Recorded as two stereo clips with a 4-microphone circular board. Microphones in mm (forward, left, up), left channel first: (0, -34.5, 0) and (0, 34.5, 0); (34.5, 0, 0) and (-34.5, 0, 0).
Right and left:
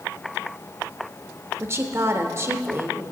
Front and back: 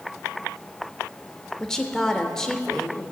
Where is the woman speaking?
75° left, 0.9 m.